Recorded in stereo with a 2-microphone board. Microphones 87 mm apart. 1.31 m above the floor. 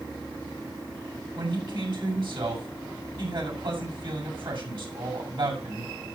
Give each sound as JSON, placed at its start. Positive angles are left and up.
{"t": 1.4, "sound": "a man speaking", "side_deg": -70, "distance_m": 6.5}